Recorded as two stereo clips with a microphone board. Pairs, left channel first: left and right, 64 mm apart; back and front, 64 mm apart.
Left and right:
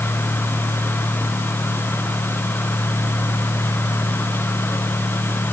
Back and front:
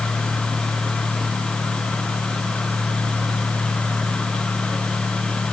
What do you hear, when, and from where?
Only background noise.